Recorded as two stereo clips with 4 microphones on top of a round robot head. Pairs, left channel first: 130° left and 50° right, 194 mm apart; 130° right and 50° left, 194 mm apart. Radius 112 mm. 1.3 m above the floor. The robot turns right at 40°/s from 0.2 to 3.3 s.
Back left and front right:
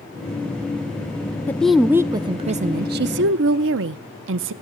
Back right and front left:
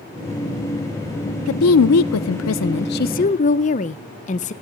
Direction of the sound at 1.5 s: 150° right.